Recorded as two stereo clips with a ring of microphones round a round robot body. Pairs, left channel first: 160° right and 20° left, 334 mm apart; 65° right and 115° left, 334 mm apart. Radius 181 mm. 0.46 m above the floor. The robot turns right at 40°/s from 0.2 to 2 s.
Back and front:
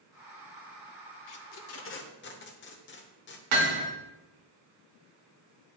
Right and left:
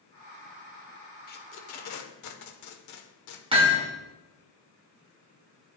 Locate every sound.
1.3 s tape being pulled: 130° right, 0.9 m; by 3.4 s 100° right, 0.9 m
3.5 s hammering: 40° left, 1.7 m